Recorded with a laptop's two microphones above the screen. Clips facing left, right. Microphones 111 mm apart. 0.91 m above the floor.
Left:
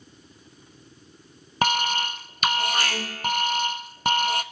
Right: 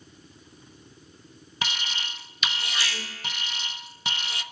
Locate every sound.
1.6 s an alarm: 50° left (ahead or behind), 0.6 m